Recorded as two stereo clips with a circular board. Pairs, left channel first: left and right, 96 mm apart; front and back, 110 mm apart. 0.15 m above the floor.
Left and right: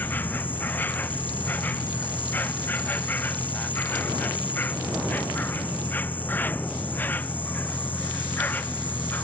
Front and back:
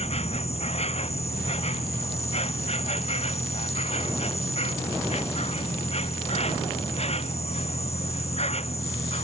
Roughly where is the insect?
Ahead.